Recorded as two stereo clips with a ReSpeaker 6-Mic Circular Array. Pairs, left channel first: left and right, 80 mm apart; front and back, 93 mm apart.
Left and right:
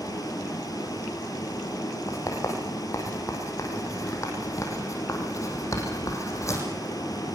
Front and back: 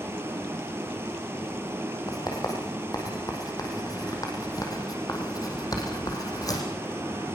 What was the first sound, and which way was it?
Running water, 120° left.